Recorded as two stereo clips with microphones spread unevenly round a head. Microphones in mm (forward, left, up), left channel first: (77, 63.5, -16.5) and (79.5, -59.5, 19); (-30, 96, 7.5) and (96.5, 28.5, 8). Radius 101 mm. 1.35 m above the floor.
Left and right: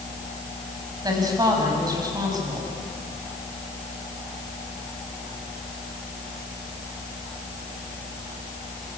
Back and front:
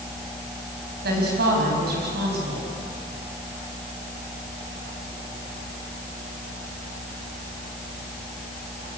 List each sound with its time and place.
1.0 s a woman speaking: 35° right, 7.5 m